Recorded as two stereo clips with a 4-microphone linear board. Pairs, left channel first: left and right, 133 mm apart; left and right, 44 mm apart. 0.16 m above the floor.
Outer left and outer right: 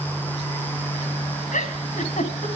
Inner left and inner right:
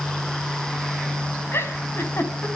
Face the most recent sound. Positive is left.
turn(degrees=65)  # may be behind; listen again after turning